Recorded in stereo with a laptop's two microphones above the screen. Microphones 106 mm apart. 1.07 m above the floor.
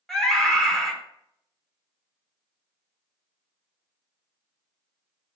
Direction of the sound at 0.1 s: 5° left (ahead or behind).